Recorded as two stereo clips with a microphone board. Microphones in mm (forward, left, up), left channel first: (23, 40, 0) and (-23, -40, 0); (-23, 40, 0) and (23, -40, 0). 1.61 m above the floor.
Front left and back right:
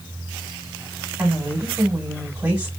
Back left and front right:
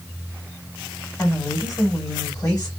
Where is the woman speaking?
175° left, 1.3 m.